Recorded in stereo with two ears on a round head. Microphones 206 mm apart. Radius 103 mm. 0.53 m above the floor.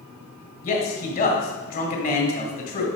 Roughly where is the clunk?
I don't hear a clunk.